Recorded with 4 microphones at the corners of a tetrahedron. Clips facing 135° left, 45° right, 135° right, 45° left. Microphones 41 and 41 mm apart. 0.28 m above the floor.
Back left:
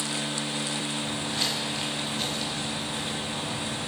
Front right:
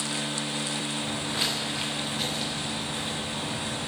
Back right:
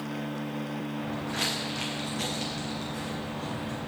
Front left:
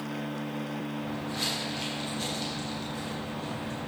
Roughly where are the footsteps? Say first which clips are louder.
Even, back right 4 dB; behind right.